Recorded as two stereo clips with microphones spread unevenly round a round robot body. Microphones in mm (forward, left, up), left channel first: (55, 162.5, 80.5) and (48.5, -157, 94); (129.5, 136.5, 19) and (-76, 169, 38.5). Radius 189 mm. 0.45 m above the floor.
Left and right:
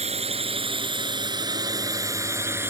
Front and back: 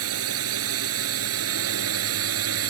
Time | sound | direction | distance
0.0 | a drone | 165° right | ?